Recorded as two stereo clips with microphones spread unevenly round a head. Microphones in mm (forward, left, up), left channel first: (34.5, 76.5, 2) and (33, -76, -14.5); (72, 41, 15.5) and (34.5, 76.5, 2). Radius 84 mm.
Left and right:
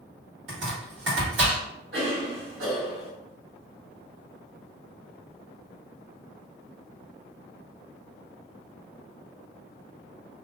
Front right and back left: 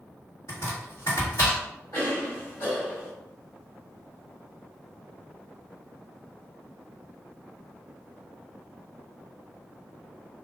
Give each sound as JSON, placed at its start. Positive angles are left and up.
{"t": 0.5, "sound": "chopping", "azimuth_deg": -105, "distance_m": 1.5}
{"t": 1.9, "sound": "a cough", "azimuth_deg": -105, "distance_m": 1.8}